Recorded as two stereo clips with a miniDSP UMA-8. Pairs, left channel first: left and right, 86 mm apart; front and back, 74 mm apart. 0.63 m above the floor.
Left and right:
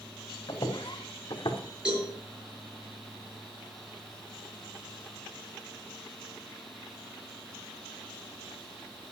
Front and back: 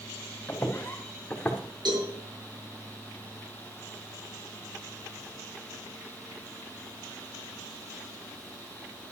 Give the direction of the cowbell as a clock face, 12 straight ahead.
6 o'clock.